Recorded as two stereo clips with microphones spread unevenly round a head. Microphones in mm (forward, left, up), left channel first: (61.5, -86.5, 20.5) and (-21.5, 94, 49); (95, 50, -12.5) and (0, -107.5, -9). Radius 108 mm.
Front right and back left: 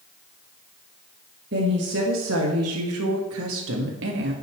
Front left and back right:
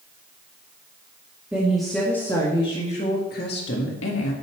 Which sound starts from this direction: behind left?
A woman speaking, at 1.5 s.